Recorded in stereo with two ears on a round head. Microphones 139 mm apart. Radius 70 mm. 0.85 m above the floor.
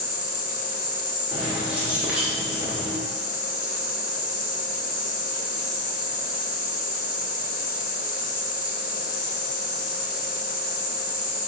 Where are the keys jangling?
10° right (ahead or behind), 0.8 m.